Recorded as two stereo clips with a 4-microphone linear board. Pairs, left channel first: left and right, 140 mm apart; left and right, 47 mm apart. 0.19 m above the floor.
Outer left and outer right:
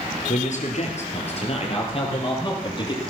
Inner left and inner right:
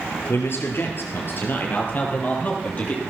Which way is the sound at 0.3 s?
60° left (ahead or behind).